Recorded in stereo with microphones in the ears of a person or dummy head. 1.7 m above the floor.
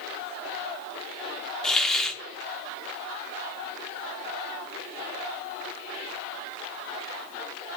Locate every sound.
1.6 s a hiss: centre (ahead or behind), 1.0 m